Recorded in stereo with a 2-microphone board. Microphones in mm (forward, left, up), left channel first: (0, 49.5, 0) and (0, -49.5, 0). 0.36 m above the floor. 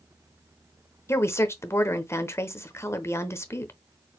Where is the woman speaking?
25° left (ahead or behind), 0.9 m.